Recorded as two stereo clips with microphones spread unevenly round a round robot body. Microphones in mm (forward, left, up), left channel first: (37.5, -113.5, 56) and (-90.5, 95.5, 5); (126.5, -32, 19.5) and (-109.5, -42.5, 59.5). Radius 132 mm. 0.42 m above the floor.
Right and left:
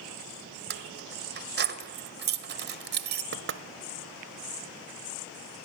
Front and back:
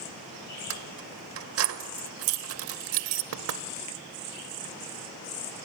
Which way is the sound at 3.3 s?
150° left.